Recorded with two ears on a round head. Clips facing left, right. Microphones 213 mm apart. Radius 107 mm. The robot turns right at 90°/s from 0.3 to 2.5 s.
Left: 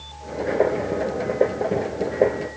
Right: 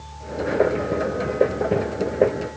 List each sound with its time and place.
Only background noise.